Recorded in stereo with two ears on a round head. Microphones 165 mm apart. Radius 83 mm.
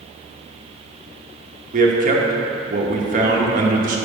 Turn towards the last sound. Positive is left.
turn(degrees=-45)  # may be behind; listen again after turning